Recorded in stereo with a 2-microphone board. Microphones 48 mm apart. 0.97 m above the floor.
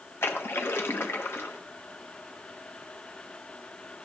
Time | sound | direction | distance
0.2 | a splash | 55° left (ahead or behind) | 0.9 m